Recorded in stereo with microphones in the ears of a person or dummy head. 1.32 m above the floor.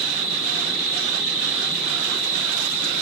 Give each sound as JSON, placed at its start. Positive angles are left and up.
{"t": 0.0, "sound": "an insect", "side_deg": -85, "distance_m": 1.9}